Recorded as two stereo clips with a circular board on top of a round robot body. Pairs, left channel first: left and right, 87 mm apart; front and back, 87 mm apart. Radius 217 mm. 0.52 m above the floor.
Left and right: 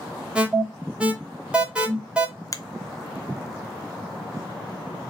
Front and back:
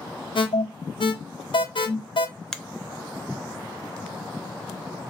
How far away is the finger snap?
About 0.6 m.